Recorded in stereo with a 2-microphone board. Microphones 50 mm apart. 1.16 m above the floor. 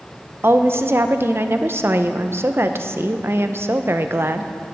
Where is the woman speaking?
50° right (ahead or behind), 0.7 m.